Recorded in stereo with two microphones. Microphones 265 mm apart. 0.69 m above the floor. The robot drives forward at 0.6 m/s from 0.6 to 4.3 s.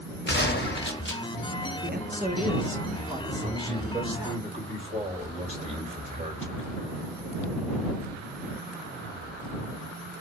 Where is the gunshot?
40° left (ahead or behind), 1.1 m; by 1.2 s 45° left (ahead or behind), 1.0 m.